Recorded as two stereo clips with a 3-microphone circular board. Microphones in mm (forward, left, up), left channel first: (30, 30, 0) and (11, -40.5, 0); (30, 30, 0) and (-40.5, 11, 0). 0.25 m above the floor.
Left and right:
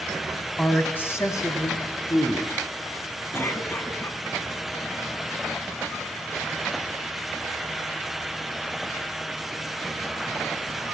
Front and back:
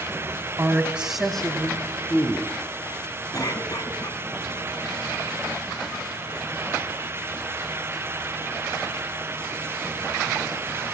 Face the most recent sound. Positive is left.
turn(degrees=25)